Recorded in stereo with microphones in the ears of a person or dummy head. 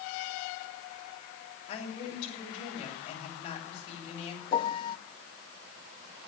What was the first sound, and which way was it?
A woman speaking, 25° left (ahead or behind).